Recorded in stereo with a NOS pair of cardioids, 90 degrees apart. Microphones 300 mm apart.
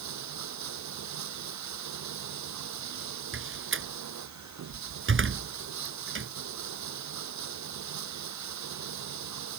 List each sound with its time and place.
0.0 s running water: 65° right
3.3 s a door slam: 40° right